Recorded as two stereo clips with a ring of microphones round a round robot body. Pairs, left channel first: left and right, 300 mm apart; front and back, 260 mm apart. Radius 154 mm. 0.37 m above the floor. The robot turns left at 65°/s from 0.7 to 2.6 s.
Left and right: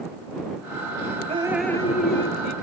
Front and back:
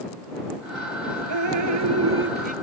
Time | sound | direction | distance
1.3 | dripping | 160° right | ?